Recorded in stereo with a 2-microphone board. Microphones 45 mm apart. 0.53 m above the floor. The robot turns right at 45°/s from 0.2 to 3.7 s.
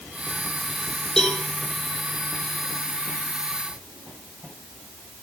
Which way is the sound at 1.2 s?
5° left (ahead or behind).